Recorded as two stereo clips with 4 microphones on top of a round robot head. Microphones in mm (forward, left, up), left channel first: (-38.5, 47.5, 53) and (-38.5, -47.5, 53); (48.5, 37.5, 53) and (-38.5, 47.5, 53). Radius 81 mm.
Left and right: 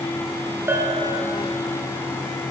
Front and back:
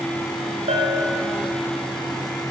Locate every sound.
0.7 s a bell: 155° right, 1.7 m